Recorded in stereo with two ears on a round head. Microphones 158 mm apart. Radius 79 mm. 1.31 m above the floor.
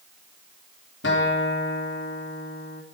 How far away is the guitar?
About 3 m.